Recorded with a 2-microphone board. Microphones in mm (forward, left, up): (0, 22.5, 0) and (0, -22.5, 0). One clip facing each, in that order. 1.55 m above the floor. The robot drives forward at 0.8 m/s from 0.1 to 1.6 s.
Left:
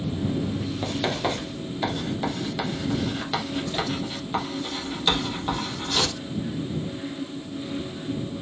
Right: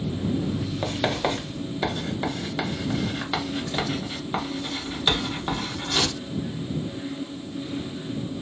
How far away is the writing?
About 0.7 m.